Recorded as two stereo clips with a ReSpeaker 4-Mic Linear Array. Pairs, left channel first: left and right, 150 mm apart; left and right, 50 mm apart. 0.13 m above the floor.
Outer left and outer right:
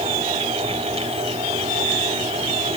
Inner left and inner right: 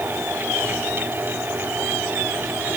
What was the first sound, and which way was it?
Only background noise.